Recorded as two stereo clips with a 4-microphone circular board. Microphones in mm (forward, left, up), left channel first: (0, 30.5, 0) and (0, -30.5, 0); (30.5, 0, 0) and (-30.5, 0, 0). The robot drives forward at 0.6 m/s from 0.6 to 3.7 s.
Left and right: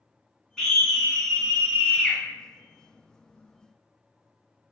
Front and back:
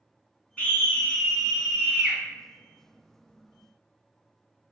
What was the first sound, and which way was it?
A scream, 15° left.